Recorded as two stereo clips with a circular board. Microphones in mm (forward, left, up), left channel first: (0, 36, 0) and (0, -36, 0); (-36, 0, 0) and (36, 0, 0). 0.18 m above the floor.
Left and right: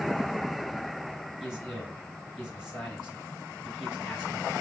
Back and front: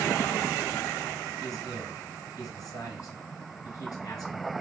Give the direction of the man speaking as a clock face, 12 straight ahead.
6 o'clock.